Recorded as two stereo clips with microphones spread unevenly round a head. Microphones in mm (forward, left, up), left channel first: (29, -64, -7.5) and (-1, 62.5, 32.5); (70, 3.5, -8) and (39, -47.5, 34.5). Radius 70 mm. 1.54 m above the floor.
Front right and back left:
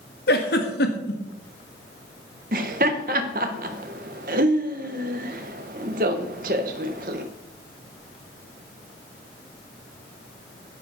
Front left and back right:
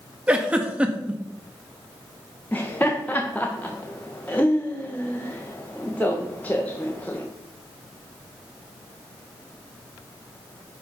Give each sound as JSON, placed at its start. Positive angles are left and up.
{"t": 0.3, "sound": "a giggle", "azimuth_deg": -65, "distance_m": 1.7}
{"t": 2.5, "sound": "laughter", "azimuth_deg": 135, "distance_m": 1.7}